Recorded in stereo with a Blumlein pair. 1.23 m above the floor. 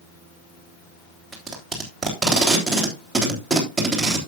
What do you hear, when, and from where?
1.3 s tape being pulled: 5° right, 3 m